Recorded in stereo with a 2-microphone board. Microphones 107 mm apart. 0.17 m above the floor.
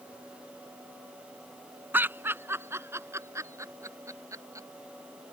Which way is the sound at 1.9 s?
20° right (ahead or behind).